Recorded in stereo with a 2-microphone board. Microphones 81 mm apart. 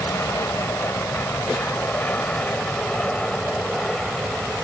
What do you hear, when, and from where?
0.0 s an aircraft: 35° left (ahead or behind); by 4.7 s centre (ahead or behind)